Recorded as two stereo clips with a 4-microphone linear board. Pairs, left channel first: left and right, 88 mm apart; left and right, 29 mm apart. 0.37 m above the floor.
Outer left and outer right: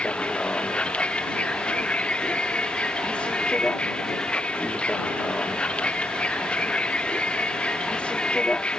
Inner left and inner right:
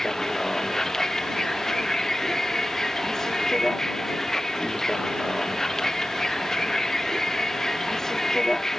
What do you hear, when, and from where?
0.0 s a vehicle: 15° left (ahead or behind)